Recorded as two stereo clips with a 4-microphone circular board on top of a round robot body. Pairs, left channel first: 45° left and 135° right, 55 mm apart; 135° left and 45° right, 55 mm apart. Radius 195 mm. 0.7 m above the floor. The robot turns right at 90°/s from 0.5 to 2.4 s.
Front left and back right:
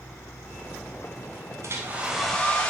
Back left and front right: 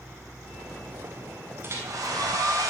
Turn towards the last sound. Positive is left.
turn(degrees=-30)